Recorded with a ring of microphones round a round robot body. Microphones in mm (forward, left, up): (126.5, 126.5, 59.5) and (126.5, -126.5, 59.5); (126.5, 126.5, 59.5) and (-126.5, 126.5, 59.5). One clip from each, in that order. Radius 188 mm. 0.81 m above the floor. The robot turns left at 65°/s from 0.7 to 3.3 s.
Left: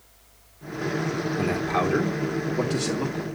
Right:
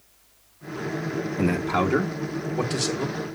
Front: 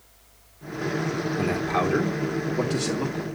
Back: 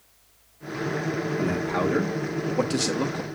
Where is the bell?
I don't hear a bell.